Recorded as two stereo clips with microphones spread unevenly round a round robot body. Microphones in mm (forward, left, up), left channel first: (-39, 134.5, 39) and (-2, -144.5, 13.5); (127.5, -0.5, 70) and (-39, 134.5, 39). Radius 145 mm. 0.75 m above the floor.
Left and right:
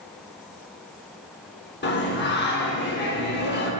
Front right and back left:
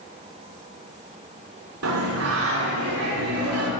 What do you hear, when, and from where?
1.8 s singing: 150° left, 1.3 m